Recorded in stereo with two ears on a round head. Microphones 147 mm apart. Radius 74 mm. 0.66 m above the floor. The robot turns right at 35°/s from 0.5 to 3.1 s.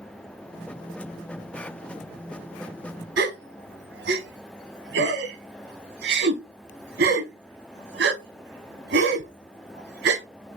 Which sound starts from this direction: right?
A gasp, at 3.2 s.